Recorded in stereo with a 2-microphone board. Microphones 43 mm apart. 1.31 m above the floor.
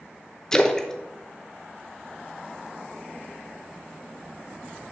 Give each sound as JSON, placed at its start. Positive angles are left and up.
{"t": 0.5, "sound": "a splash", "side_deg": 10, "distance_m": 0.7}